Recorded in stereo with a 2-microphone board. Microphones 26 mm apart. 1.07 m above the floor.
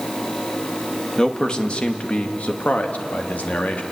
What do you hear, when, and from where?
1.2 s a man speaking: 30° left (ahead or behind), 2 m; by 3.8 s 75° left (ahead or behind), 3 m